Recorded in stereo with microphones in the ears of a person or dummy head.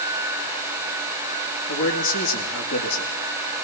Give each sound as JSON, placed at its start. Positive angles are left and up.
{"t": 1.7, "sound": "a man speaking", "side_deg": 85, "distance_m": 3.5}